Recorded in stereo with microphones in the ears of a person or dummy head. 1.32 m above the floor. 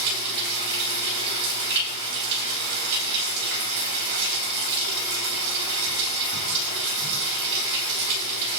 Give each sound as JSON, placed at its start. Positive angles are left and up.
{"t": 0.0, "sound": "running water", "side_deg": -60, "distance_m": 5.0}